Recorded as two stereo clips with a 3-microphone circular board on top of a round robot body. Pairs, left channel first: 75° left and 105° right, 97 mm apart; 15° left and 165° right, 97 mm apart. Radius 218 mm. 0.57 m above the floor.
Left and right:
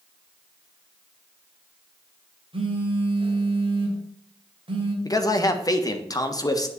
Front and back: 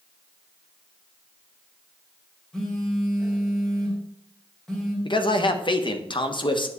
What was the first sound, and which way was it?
A phone buzzing, 70° right.